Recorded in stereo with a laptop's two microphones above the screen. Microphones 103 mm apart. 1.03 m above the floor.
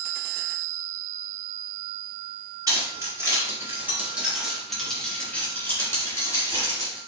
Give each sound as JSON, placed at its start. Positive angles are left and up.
{"t": 2.7, "sound": "keys jangling", "side_deg": -40, "distance_m": 1.8}